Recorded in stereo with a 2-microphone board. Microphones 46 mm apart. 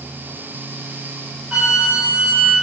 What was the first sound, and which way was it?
A flute, 25° right (ahead or behind).